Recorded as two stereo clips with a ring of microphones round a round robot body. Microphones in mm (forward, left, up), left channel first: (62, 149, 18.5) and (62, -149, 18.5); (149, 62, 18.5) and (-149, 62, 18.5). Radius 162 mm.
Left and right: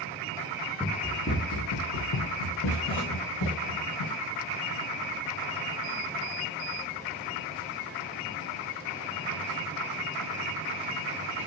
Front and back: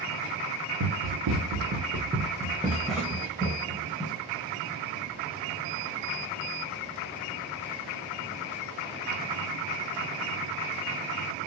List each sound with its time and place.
0.8 s running footsteps: straight behind, 0.8 m; by 4.1 s 75° left, 1.8 m